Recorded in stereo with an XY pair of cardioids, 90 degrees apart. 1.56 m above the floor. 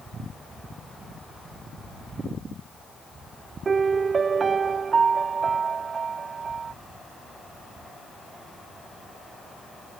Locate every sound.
3.6 s a piano: 45° right